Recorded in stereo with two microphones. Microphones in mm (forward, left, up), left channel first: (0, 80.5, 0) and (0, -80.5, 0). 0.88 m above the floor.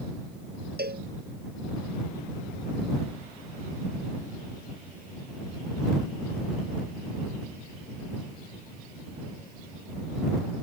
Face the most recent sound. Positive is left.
turn(degrees=-80)